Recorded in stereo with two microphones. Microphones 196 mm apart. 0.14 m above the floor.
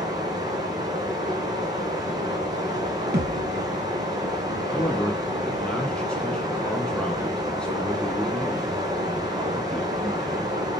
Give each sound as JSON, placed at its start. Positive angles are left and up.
{"t": 0.0, "sound": "running water", "side_deg": -20, "distance_m": 1.7}
{"t": 3.1, "sound": "a thud", "side_deg": -65, "distance_m": 1.4}
{"t": 4.7, "sound": "a man speaking", "side_deg": 5, "distance_m": 1.1}